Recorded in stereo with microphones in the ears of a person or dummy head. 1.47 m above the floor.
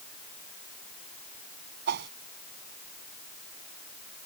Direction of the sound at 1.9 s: 60° right (ahead or behind).